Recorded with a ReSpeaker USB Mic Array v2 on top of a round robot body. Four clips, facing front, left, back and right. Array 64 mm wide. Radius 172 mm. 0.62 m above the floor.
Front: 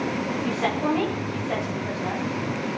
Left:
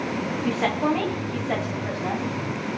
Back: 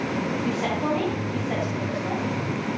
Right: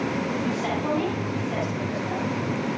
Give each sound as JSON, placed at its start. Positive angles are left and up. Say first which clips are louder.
{"t": 0.4, "sound": "a woman speaking", "louder": "left 3 dB, front 3 dB", "azimuth_deg": 80, "distance_m": 7.5}